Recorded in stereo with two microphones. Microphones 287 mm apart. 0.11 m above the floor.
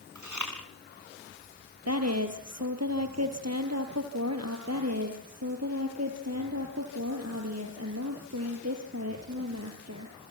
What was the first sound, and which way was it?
Chewing, 80° right.